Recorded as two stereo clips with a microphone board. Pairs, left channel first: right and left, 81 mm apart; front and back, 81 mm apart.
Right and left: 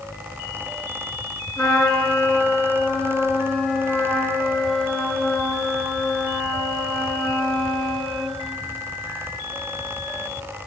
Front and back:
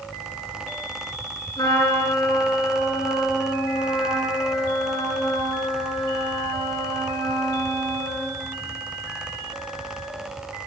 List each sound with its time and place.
1.6 s a trumpet: 10° right, 3.5 m